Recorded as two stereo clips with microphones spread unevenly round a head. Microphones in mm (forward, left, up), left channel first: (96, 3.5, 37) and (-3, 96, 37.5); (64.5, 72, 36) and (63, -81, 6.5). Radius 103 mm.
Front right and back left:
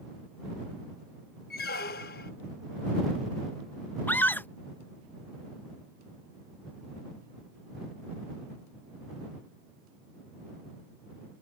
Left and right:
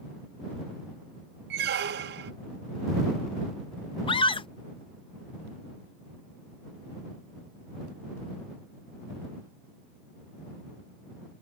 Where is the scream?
35° left.